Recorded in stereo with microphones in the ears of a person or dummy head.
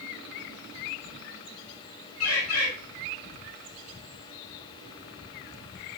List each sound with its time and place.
2.2 s a bird: 80° left, 3 m